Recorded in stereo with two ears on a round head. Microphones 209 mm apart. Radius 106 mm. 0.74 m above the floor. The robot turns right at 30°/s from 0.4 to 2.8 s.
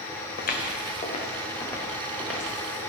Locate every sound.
0.4 s footsteps: 40° left (ahead or behind), 2 m; by 2.8 s 15° right (ahead or behind), 5.5 m